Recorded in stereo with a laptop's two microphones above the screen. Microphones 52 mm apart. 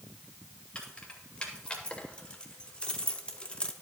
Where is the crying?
No crying in this recording.